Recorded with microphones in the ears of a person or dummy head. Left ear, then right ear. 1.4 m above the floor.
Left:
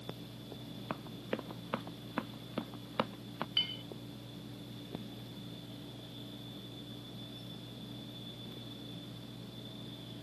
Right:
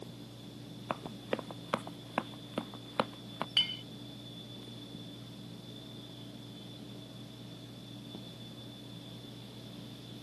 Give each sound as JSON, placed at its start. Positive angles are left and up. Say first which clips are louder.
{"t": 0.9, "sound": "running footsteps", "louder": "right 4 dB", "side_deg": -15}
{"t": 3.6, "sound": "a clink", "louder": "right 4 dB", "side_deg": -15}